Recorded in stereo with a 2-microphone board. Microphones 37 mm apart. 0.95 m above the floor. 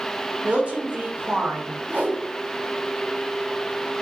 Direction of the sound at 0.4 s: 35° right (ahead or behind).